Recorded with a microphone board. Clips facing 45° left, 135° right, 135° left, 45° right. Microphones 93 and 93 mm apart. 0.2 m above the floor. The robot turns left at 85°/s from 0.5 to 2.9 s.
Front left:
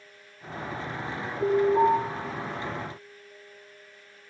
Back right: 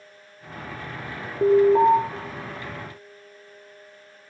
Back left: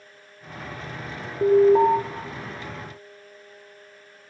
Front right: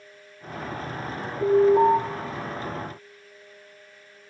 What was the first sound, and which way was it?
An alarm, 160° right.